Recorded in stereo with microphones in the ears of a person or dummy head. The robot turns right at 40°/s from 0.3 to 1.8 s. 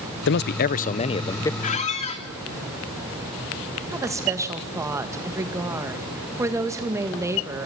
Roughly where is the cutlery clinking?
I don't hear cutlery clinking.